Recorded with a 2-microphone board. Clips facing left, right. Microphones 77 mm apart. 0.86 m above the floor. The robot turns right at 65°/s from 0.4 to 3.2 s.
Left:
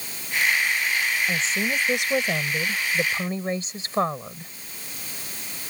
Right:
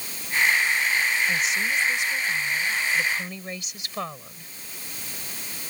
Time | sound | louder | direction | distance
1.3 | a woman speaking | even | 25° left | ?